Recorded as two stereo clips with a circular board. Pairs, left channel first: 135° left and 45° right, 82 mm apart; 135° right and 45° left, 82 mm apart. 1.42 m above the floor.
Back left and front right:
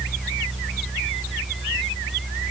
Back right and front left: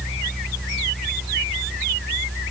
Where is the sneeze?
I don't hear a sneeze.